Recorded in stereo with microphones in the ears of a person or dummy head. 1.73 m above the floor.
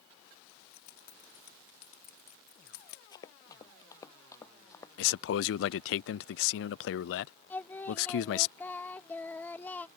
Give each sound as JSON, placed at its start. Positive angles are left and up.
{"t": 0.5, "sound": "keys jangling", "side_deg": 55}
{"t": 3.1, "sound": "running footsteps", "side_deg": 25}
{"t": 5.0, "sound": "a man speaking", "side_deg": 75}
{"t": 7.5, "sound": "singing", "side_deg": 10}